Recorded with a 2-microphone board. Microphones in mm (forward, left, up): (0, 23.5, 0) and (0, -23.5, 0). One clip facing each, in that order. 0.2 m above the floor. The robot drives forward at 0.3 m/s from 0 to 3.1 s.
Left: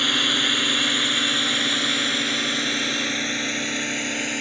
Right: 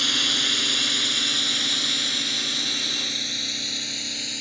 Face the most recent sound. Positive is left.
turn(degrees=40)  # may be behind; listen again after turning